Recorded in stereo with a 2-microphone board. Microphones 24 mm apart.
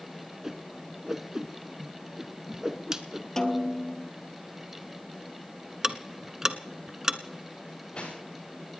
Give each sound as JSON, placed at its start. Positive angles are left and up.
{"t": 0.4, "sound": "a whoosh", "side_deg": -25, "distance_m": 1.2}
{"t": 3.4, "sound": "a snare drum", "side_deg": 25, "distance_m": 1.2}
{"t": 5.8, "sound": "ticking", "side_deg": -20, "distance_m": 1.1}
{"t": 7.6, "sound": "cutlery clinking", "side_deg": 50, "distance_m": 10.0}